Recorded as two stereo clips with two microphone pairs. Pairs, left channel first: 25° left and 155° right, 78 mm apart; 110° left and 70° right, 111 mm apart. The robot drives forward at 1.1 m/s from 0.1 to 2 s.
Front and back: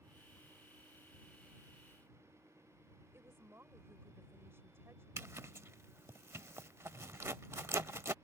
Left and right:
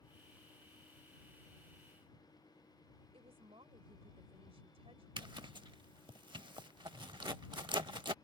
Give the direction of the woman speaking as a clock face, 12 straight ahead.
3 o'clock.